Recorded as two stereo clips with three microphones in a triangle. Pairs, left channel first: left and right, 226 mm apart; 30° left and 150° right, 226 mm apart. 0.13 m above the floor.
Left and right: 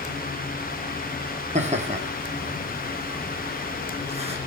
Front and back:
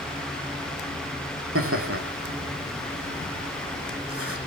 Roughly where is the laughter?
Behind right.